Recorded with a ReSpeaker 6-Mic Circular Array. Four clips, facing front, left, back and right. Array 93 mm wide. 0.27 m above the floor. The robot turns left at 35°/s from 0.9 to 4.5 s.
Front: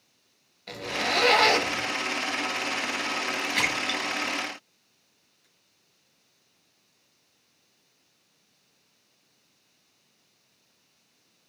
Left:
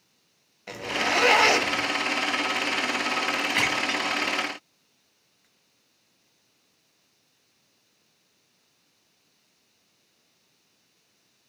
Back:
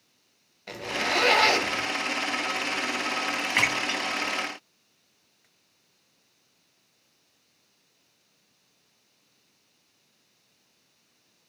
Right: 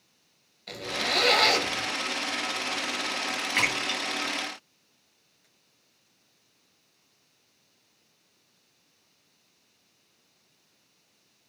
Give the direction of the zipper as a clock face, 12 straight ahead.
8 o'clock.